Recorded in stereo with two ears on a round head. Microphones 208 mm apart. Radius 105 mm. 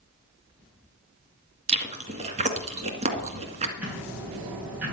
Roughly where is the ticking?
Centre.